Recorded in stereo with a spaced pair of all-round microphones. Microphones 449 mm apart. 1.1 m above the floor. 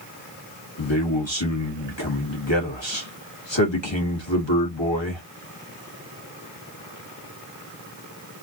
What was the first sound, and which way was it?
A man speaking, 75° left (ahead or behind).